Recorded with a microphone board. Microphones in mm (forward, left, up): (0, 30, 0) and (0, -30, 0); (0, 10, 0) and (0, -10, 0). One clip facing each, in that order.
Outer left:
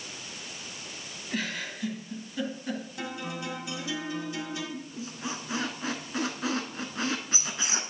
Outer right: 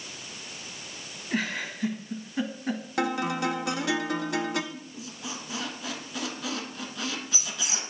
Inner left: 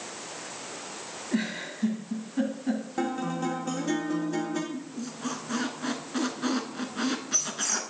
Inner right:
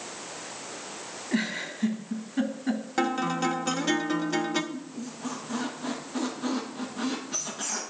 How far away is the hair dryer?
No hair dryer in this recording.